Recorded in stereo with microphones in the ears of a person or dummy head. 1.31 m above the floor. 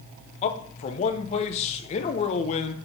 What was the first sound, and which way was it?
A man speaking, 35° left (ahead or behind).